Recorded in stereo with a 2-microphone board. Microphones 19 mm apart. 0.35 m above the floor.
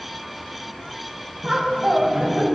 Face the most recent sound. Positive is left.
turn(degrees=-40)  # may be behind; listen again after turning